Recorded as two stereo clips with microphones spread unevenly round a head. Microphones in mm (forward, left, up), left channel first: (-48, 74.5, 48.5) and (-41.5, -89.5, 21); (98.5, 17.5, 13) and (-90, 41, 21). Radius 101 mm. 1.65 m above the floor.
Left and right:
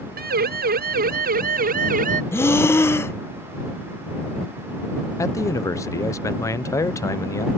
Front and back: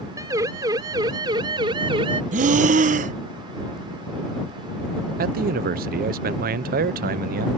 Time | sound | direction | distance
0.2 | a siren | 110° right | ?
2.3 | breathing | 150° left | ?
5.2 | a man speaking | 150° left | ?